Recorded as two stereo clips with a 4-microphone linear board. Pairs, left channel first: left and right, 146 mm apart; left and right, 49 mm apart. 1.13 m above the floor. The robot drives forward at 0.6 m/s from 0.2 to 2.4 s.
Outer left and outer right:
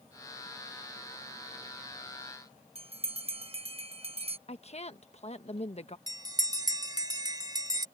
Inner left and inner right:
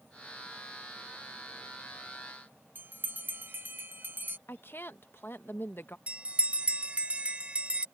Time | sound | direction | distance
2.8 | a bell | 40° right (ahead or behind) | ?
4.5 | a woman speaking | 50° left (ahead or behind) | ?
6.1 | a bell | 30° right (ahead or behind) | ?